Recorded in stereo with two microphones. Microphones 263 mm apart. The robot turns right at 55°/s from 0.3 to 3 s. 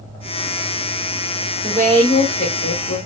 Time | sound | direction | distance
1.6 | a woman speaking | 15° right | 1.8 m